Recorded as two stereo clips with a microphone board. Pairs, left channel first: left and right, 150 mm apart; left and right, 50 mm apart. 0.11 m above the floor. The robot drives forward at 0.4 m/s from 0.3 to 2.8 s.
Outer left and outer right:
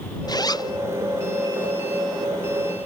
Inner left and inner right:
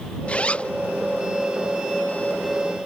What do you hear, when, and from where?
0.3 s a zipper: 25° left (ahead or behind)